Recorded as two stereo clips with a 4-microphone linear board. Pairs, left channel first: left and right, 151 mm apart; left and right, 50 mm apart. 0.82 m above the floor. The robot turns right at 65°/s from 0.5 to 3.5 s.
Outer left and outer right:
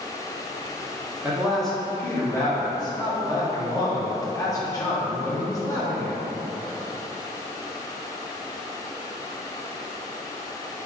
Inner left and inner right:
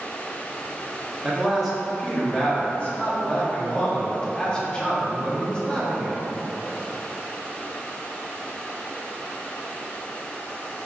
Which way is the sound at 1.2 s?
10° right (ahead or behind).